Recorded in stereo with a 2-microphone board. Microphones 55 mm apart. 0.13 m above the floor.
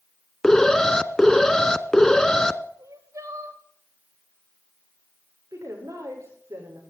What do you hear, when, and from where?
0.4 s an alarm: 15° left (ahead or behind), 0.7 m
2.8 s crying: 75° right (ahead or behind), 3 m
5.5 s a woman speaking: 85° right, 9.5 m